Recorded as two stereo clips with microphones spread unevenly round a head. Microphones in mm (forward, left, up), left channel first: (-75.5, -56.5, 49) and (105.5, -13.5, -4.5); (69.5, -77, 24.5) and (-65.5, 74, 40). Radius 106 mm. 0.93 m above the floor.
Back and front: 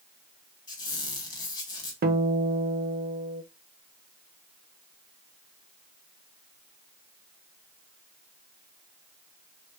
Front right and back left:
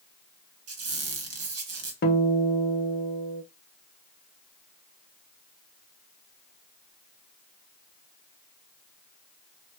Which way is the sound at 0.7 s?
120° left.